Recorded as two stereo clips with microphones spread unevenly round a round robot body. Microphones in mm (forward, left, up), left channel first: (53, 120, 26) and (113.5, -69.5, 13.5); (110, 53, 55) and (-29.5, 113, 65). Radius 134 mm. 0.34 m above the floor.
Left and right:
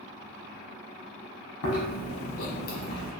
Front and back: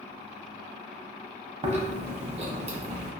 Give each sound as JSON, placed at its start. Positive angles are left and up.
{"t": 1.6, "sound": "chewing", "azimuth_deg": 110, "distance_m": 1.0}